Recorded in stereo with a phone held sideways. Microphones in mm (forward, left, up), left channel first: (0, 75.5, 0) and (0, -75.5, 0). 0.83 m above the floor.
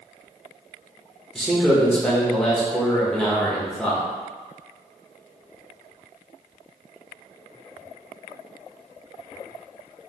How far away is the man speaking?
About 1.0 m.